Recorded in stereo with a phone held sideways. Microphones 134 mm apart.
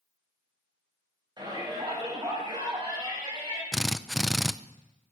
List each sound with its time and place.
1.4 s a shout: 30° right (ahead or behind), 7.5 m; by 3.6 s 35° right (ahead or behind), 8.5 m
3.7 s a drill: centre (ahead or behind), 0.5 m